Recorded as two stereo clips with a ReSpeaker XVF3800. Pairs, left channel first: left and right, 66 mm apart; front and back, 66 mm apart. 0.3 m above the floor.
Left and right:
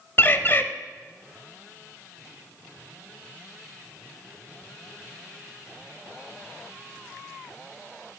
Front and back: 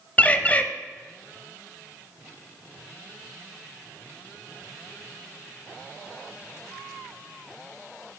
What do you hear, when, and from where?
0.2 s a bird: 55° left, 0.5 m